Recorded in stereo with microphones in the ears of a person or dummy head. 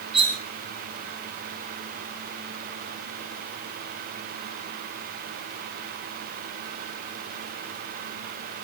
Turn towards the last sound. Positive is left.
turn(degrees=-30)  # may be behind; listen again after turning